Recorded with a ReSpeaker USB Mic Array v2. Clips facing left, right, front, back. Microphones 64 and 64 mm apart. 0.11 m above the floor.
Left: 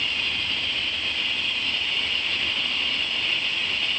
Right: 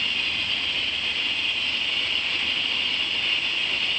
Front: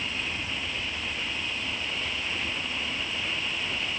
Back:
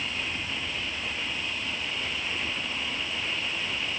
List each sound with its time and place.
Only background noise.